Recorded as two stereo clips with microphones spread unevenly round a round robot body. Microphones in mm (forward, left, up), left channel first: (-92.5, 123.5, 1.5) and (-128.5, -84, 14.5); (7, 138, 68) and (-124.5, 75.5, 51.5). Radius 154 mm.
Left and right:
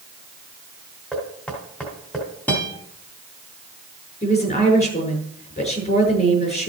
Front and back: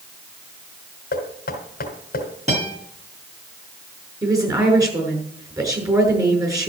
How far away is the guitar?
About 6.5 m.